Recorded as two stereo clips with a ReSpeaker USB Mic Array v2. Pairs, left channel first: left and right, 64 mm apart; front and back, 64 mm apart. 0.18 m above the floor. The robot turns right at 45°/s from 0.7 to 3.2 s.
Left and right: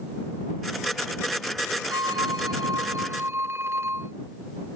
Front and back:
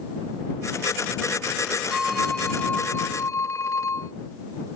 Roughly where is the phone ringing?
Right.